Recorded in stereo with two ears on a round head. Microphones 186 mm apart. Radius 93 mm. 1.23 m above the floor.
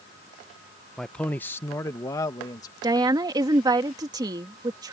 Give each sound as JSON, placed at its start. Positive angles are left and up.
{"t": 1.0, "sound": "a man speaking", "side_deg": 0}
{"t": 2.8, "sound": "a woman speaking", "side_deg": -20}